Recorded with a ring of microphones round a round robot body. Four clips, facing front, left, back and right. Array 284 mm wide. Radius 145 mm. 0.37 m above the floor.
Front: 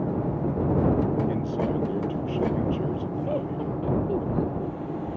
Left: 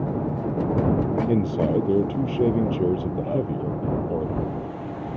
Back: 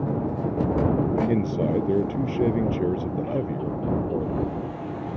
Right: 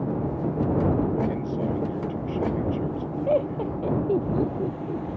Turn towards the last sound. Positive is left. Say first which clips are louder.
# right 5 dB, back 1 dB
turn(degrees=-85)